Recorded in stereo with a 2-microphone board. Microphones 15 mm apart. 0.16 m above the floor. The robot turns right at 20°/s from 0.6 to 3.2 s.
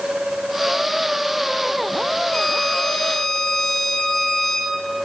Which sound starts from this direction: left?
A violin, at 2.3 s.